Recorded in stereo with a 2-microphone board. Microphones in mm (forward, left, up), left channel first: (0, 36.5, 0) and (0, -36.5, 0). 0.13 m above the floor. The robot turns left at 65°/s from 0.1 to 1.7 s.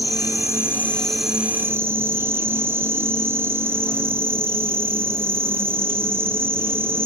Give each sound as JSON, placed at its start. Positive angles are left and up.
{"t": 0.0, "sound": "an insect", "azimuth_deg": 70, "distance_m": 0.8}